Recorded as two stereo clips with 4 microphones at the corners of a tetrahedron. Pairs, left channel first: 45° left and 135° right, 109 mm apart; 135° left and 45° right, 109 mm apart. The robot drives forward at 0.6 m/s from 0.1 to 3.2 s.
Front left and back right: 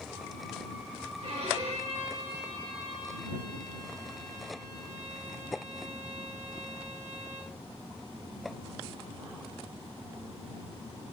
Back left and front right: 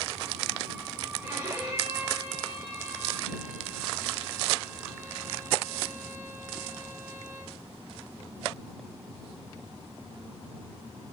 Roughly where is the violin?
Behind right.